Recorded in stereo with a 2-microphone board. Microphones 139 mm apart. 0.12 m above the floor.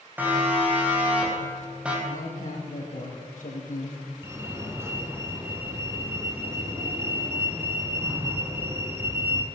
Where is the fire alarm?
20° right (ahead or behind), 2 m.